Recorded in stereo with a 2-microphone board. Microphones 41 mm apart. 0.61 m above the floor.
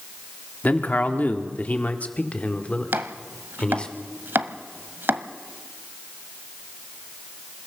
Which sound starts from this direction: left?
A man speaking, at 0.6 s.